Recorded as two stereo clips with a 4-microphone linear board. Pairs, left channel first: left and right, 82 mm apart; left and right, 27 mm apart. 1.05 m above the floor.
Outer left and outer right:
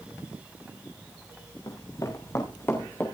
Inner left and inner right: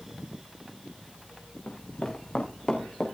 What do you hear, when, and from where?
1.7 s running footsteps: 50° left (ahead or behind), 3.5 m; by 3.1 s 20° left (ahead or behind), 4 m